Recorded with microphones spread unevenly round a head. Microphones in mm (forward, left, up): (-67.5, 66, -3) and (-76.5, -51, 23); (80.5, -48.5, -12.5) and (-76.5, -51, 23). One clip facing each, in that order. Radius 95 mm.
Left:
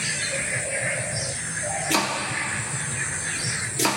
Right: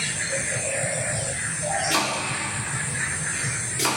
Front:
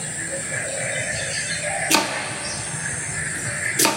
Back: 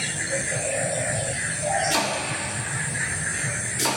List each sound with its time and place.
1.9 s chopping: 30° left, 0.8 m